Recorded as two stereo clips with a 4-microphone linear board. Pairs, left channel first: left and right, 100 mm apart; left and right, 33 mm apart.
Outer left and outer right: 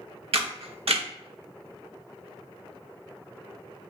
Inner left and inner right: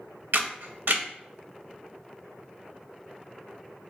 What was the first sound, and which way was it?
A camera shutter, 75° right (ahead or behind).